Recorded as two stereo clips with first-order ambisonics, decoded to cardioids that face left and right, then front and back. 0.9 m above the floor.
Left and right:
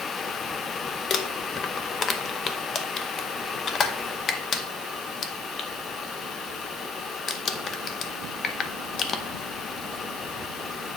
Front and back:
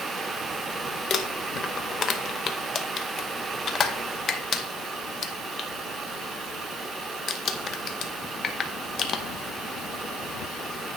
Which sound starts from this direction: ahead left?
Crumpling, at 1.1 s.